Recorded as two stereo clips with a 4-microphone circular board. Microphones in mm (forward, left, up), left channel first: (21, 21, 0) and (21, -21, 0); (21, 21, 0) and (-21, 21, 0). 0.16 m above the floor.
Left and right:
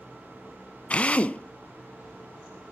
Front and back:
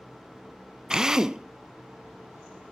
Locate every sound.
0.9 s a drill: 115° left, 0.5 m